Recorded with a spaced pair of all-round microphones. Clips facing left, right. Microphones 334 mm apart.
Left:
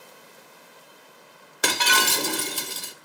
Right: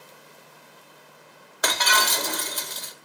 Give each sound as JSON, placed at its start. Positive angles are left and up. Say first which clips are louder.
{"t": 1.6, "sound": "breaking glass", "louder": "left 2 dB", "side_deg": 35, "distance_m": 1.1}